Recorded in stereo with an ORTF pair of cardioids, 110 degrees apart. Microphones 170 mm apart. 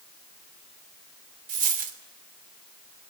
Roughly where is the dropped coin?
Ahead right.